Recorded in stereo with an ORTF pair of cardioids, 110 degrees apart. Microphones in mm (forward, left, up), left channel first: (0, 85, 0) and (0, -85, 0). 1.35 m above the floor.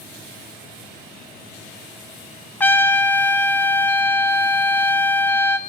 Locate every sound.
2.6 s a trumpet: 10° left, 0.6 m